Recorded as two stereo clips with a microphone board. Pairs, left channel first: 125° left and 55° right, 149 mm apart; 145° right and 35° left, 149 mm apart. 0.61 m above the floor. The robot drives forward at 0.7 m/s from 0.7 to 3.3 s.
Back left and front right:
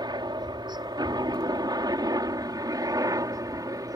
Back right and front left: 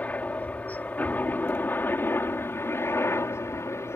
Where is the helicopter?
75° right; by 4.0 s 95° right.